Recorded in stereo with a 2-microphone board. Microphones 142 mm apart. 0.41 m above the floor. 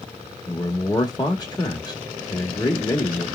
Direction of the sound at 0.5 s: 30° left (ahead or behind).